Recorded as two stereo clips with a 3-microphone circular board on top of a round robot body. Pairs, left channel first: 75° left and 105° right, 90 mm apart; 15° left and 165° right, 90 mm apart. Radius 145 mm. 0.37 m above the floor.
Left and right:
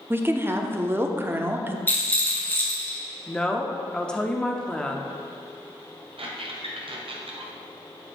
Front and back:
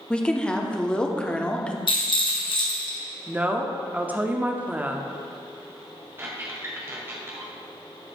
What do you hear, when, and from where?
0.1 s a woman speaking: 60° right, 0.9 m
1.9 s a rattle: 10° left, 2.0 m
3.3 s a woman speaking: 145° left, 0.8 m
6.2 s a squeak: 100° right, 1.3 m